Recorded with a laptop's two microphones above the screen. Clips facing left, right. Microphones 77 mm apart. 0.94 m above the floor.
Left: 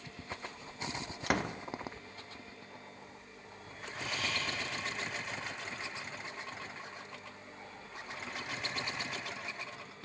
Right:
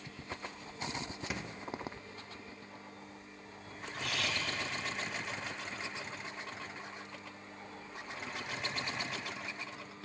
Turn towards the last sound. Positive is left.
turn(degrees=-75)  # may be behind; listen again after turning